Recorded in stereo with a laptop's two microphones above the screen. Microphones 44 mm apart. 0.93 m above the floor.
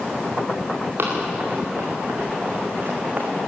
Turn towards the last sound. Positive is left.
turn(degrees=-40)  # may be behind; listen again after turning